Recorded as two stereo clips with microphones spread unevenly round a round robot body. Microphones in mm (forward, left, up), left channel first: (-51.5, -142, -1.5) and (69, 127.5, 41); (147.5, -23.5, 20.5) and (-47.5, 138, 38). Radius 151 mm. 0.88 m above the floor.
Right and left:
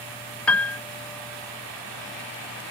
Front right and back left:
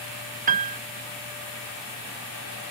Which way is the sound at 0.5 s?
175° left.